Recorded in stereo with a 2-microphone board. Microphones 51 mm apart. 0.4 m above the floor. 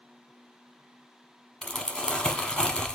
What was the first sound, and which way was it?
Crumpling, 15° left (ahead or behind).